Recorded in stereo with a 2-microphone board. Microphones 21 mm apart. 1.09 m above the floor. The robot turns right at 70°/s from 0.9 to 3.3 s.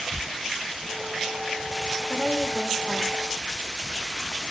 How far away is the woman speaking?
About 3.5 m.